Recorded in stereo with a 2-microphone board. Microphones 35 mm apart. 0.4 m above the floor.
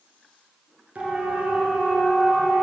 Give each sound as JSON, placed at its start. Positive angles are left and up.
{"t": 0.9, "sound": "a siren", "side_deg": -40, "distance_m": 5.5}